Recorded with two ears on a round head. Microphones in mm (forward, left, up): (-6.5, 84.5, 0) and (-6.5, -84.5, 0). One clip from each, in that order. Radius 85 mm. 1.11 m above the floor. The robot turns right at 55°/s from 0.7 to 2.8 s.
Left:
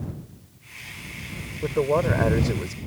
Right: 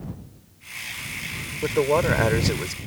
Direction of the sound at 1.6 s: 95° right.